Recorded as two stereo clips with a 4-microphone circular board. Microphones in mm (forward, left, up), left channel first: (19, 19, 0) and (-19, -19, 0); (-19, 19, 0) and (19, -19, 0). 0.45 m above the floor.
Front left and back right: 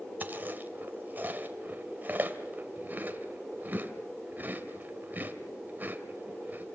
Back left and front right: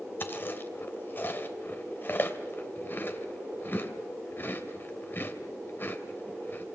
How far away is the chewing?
About 2.5 m.